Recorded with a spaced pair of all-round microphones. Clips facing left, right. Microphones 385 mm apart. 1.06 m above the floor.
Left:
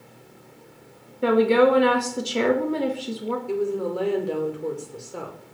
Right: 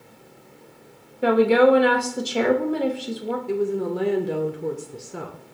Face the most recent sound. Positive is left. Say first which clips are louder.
# right 2 dB
turn(degrees=-30)  # may be behind; listen again after turning